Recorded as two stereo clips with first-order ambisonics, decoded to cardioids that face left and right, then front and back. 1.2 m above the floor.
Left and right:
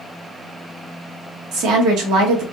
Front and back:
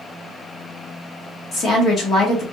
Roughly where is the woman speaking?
Ahead right.